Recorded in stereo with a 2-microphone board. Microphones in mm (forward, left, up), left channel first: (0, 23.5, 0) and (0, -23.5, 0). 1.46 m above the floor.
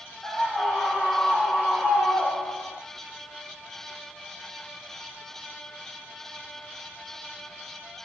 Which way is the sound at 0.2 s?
5° left (ahead or behind).